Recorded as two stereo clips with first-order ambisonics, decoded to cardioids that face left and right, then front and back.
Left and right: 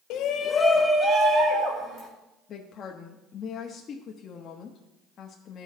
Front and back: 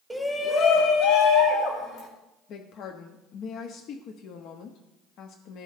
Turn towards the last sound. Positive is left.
turn(degrees=35)